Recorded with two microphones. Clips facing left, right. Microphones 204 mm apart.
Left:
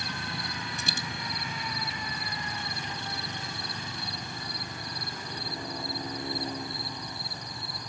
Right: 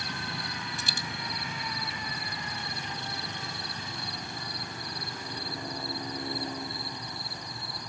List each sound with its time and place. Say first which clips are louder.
0.8 s a dropped coin: left 2 dB; 75° left (ahead or behind), 0.7 m